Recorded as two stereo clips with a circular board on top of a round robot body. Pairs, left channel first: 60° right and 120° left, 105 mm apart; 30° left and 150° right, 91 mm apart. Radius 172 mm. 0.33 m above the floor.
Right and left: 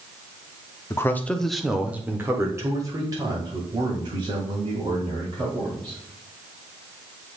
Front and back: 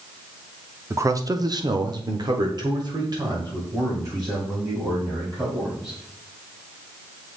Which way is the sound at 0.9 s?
110° right.